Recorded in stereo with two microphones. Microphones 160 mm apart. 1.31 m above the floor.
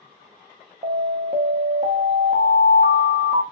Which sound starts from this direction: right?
An alarm, at 0.8 s.